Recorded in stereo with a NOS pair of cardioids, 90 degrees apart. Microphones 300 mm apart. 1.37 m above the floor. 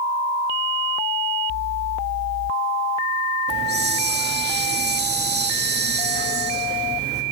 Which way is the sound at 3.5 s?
35° right.